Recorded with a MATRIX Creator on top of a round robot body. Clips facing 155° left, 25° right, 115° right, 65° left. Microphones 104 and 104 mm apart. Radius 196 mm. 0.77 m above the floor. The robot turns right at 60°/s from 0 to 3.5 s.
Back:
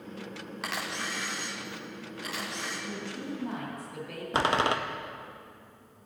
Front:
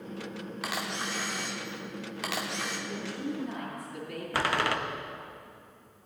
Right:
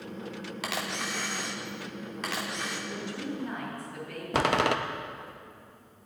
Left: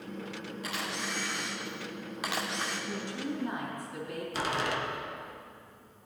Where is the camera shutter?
110° right, 0.5 m; by 2.8 s 20° left, 0.5 m.